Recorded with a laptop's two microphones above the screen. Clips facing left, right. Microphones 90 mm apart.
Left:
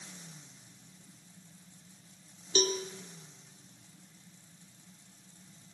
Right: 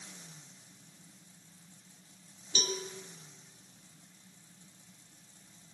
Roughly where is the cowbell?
Left.